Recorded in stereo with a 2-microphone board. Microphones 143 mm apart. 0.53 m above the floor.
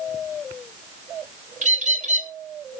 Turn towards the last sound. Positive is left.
turn(degrees=-60)  # may be behind; listen again after turning